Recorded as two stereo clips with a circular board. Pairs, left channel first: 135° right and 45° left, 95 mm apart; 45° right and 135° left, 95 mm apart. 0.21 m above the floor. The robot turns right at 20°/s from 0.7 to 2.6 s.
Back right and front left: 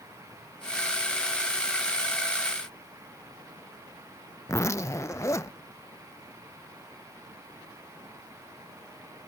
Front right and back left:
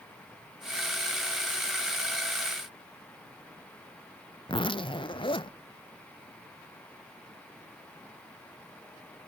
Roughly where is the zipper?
Right.